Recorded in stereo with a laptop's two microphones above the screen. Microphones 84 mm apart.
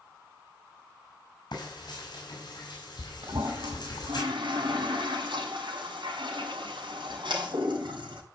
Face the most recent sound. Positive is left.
turn(degrees=-85)